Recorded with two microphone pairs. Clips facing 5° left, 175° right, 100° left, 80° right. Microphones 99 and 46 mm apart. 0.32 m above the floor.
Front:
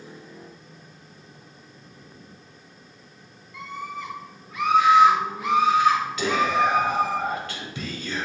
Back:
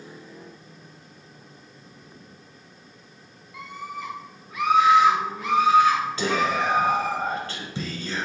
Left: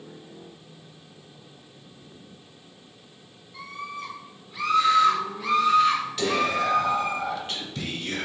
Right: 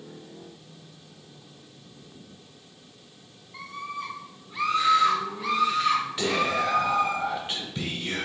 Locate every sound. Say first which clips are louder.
3.5 s a scream: front 1 dB, right 1 dB; 105° right, 1.9 m; by 7.2 s 35° left, 1.8 m
6.2 s whispering: front 2 dB, left 1 dB; 140° right, 1.4 m